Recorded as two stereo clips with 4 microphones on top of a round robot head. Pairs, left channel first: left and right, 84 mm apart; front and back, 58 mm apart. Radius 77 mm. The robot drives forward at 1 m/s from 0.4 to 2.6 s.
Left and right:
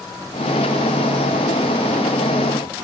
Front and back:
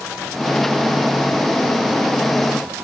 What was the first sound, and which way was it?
Only background noise.